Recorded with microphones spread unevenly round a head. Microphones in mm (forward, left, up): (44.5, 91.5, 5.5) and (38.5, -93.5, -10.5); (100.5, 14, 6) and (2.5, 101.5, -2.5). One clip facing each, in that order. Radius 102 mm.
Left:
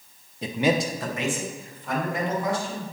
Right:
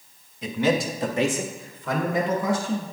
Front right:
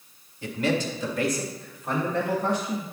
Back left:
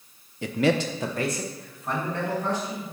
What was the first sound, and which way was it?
A man speaking, 145° left.